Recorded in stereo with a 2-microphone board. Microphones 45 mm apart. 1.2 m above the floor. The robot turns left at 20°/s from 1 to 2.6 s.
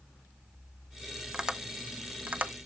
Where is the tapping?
15° right (ahead or behind), 0.6 m; by 2.5 s 40° right (ahead or behind), 0.6 m.